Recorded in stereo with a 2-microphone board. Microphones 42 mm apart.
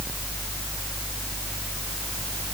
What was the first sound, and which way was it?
Only background noise.